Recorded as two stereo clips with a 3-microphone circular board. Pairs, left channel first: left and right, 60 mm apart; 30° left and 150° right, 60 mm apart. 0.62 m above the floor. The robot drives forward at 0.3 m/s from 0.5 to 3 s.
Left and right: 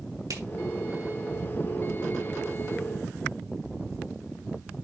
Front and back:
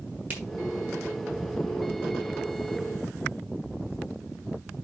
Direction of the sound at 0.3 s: 90° right.